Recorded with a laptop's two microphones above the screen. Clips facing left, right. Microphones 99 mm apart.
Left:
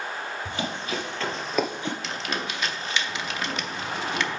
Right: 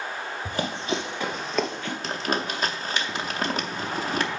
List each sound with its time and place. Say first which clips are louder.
0.5 s running footsteps: right 5 dB; 45° right (ahead or behind), 1.5 m; by 1.9 s 25° left (ahead or behind), 1.2 m
2.0 s crumpling: right 3 dB; 40° right (ahead or behind), 0.6 m